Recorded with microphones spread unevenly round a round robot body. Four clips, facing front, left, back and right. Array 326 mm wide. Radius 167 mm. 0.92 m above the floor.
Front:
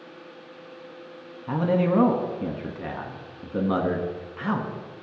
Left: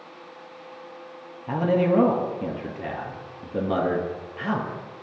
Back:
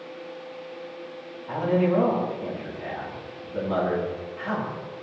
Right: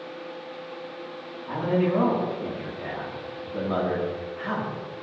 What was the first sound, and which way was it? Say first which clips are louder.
A man speaking: left 3 dB, even; 35° left.